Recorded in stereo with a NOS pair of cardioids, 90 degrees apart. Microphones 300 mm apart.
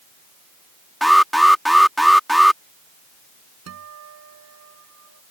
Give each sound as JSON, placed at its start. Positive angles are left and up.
{"t": 1.0, "sound": "an alarm", "azimuth_deg": 0}
{"t": 3.7, "sound": "a guitar", "azimuth_deg": -60}